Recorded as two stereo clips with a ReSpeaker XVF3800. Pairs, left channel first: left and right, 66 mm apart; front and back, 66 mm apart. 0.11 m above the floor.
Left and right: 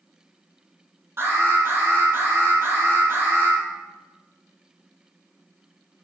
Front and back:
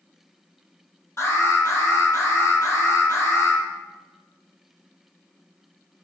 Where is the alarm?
45° right, 3 m.